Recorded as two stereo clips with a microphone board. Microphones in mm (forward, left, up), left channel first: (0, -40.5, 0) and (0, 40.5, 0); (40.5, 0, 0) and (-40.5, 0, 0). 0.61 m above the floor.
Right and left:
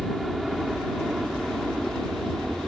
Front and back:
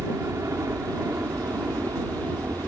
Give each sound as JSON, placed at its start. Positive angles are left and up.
{"t": 0.0, "sound": "a helicopter", "azimuth_deg": 175}